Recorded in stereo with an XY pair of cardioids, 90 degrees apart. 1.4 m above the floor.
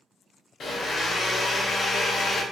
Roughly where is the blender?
Ahead left.